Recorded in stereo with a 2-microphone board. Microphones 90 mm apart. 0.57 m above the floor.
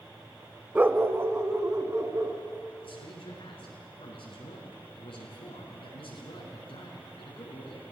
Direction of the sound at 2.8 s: 80° left.